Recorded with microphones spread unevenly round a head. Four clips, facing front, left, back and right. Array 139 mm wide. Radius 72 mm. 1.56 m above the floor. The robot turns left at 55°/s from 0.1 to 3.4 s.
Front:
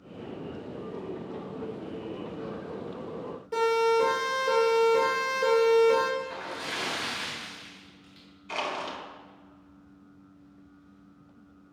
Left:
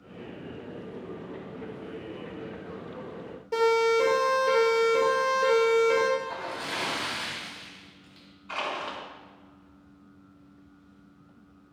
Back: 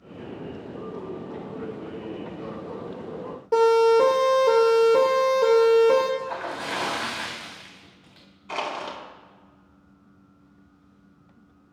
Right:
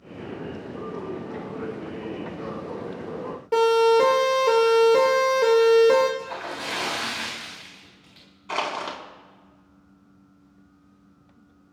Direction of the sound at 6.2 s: 165° right.